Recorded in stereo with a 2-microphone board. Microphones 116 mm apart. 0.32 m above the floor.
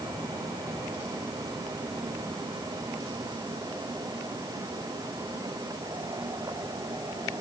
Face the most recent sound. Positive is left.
No sound to turn to.